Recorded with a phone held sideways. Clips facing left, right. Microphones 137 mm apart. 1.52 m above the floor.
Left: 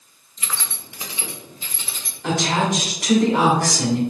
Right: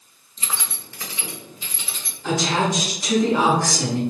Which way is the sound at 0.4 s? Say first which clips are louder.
Even; 35° right (ahead or behind).